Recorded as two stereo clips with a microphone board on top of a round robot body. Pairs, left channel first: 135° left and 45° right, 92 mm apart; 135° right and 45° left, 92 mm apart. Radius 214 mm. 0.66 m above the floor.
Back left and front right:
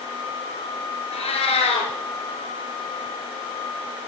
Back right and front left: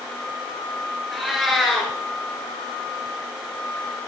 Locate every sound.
1.1 s a cat meowing: 135° left, 1.6 m